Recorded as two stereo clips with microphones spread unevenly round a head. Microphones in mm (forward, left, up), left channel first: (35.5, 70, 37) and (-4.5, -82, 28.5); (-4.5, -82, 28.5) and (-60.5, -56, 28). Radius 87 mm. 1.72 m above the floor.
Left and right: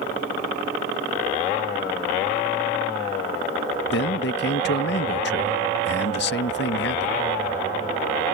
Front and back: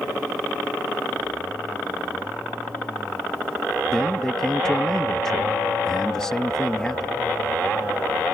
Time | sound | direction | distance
3.9 | a man speaking | 60° left | ?